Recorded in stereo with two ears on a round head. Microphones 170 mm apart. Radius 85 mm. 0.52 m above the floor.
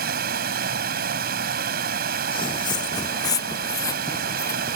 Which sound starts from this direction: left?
Footsteps, at 2.3 s.